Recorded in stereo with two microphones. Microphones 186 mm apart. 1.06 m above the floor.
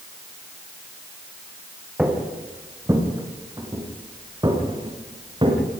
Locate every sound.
2.0 s footsteps: 5° right (ahead or behind), 4.5 m; by 5.6 s 30° right (ahead or behind), 6.5 m